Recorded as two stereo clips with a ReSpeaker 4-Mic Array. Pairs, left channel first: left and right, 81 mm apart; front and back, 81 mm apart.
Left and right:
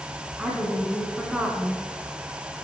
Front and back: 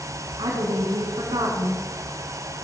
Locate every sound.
0.4 s a woman speaking: 170° right, 3 m